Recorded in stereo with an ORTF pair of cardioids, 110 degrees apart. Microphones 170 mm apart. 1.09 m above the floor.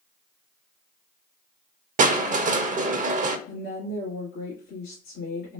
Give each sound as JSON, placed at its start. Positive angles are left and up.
{"t": 2.0, "sound": "crushing", "azimuth_deg": -50, "distance_m": 0.6}
{"t": 3.5, "sound": "a woman speaking", "azimuth_deg": 65, "distance_m": 2.0}